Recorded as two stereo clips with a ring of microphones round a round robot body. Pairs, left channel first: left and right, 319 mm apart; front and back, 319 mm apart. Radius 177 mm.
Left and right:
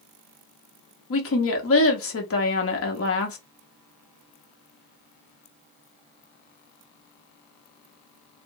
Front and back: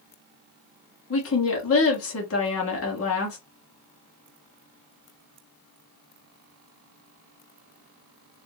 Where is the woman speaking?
45° left, 1.1 m.